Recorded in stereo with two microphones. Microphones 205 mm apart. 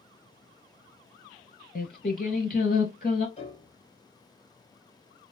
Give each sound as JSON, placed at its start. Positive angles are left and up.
{"t": 1.8, "sound": "singing", "side_deg": 45, "distance_m": 1.2}
{"t": 3.4, "sound": "a piano", "side_deg": 30, "distance_m": 2.0}